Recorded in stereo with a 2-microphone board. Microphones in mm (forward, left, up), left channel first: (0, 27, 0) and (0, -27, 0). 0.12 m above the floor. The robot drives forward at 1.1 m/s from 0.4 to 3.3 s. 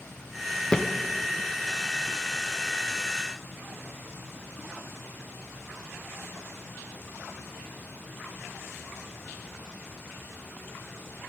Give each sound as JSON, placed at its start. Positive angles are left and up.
{"t": 0.7, "sound": "a thud", "side_deg": 15, "distance_m": 0.9}